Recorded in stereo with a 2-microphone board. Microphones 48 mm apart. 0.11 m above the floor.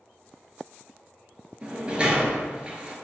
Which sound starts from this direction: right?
A sliding door, at 1.6 s.